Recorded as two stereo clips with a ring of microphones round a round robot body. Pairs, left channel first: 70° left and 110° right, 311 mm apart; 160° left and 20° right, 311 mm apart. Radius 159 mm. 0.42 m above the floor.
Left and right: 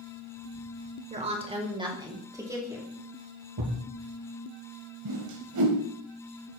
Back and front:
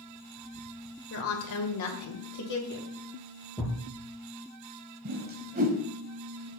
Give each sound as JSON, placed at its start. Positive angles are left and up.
{"t": 1.1, "sound": "a woman speaking", "azimuth_deg": -175, "distance_m": 1.8}
{"t": 3.6, "sound": "a thud", "azimuth_deg": -115, "distance_m": 3.5}
{"t": 5.0, "sound": "a whoosh", "azimuth_deg": -85, "distance_m": 1.4}